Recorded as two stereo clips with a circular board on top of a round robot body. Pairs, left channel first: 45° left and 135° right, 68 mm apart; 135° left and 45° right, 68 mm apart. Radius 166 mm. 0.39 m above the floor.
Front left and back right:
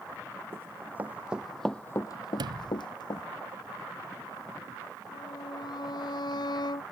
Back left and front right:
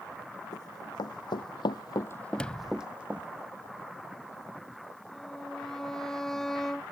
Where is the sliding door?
145° right.